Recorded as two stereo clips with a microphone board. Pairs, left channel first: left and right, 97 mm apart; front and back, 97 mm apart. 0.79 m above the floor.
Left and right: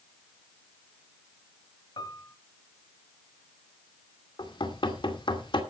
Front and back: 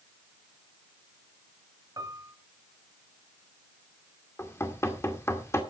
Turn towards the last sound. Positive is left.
turn(degrees=60)